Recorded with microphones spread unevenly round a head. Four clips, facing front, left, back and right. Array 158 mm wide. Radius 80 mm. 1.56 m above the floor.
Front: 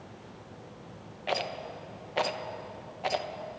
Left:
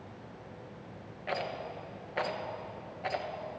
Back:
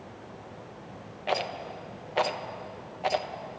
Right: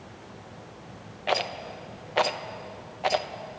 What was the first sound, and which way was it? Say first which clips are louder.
A rattle: right 7 dB, back 2 dB; 70° right.